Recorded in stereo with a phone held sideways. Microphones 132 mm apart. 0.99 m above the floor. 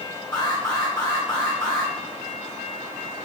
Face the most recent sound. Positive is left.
turn(degrees=35)  # may be behind; listen again after turning